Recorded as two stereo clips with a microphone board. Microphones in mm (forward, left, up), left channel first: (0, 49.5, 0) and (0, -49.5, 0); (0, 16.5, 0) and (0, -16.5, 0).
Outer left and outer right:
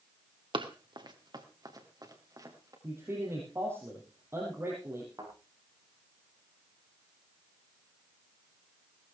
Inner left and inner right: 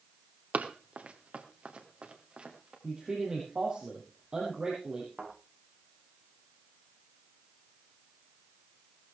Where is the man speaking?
25° right (ahead or behind), 5 m.